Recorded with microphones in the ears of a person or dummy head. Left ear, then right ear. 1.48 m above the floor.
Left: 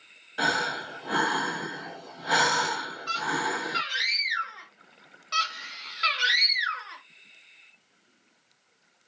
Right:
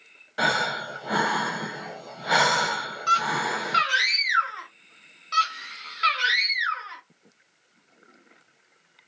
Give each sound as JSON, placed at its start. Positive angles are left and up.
{"t": 0.4, "sound": "breathing", "side_deg": -15, "distance_m": 1.0}
{"t": 3.1, "sound": "a scream", "side_deg": -65, "distance_m": 1.3}
{"t": 5.3, "sound": "a scream", "side_deg": 0, "distance_m": 0.8}